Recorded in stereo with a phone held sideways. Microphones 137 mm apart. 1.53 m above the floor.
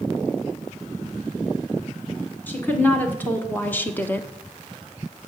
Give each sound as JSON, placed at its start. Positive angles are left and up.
{"t": 2.5, "sound": "a woman speaking", "side_deg": 15, "distance_m": 3.0}